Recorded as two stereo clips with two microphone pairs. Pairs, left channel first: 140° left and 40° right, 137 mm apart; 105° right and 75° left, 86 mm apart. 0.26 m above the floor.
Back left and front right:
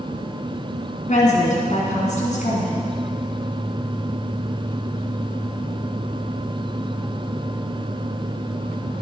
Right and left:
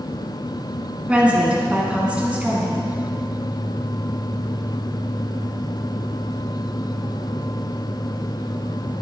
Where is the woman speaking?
145° left, 3 m.